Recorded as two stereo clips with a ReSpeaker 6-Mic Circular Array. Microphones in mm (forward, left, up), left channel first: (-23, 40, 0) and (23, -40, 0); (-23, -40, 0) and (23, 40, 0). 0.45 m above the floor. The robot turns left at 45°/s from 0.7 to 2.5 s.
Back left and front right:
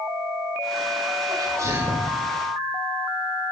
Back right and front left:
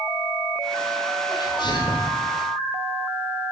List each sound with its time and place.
1.3 s a sneeze: 90° right, 2.0 m; by 2.1 s 130° right, 2.0 m